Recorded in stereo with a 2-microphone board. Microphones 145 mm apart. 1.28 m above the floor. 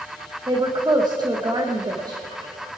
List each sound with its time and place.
0.5 s a woman speaking: 25° right (ahead or behind), 1.2 m